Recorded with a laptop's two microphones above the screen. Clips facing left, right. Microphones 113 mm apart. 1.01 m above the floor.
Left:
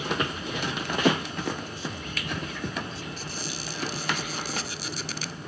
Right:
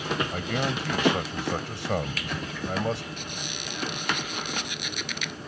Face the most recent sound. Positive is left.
turn(degrees=35)  # may be behind; listen again after turning